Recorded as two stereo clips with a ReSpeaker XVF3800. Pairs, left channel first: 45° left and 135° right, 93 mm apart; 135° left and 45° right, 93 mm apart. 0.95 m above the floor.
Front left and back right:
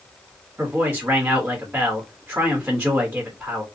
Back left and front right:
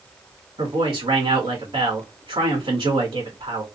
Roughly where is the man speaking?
Ahead right.